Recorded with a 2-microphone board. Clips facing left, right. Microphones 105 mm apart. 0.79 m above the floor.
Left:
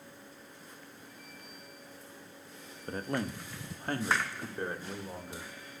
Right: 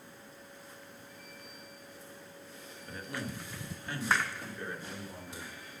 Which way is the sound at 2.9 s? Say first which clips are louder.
Left 6 dB; 45° left (ahead or behind).